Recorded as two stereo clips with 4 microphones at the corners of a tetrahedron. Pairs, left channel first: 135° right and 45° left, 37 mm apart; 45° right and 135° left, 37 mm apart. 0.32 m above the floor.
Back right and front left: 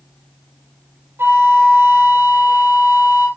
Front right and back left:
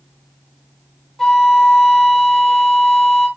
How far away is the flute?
About 2.5 m.